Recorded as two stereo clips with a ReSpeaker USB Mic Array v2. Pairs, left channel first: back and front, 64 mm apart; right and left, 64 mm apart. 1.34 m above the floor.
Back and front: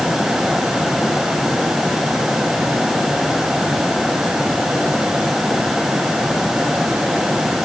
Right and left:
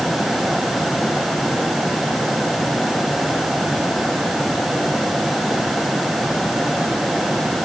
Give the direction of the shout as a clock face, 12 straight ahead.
No shout in this recording.